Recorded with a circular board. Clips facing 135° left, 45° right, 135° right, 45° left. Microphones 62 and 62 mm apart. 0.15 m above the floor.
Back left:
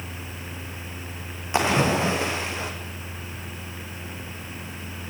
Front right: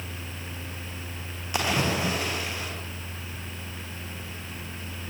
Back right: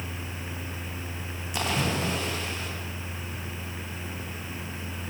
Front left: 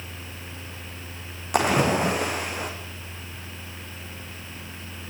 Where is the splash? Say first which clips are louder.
Back left 5 dB, front left 8 dB; 70° left, 5 m.